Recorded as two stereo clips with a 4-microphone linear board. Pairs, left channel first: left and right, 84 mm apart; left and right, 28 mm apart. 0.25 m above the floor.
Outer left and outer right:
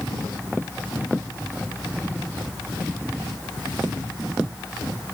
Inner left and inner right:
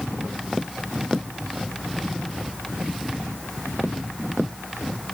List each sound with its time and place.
Only background noise.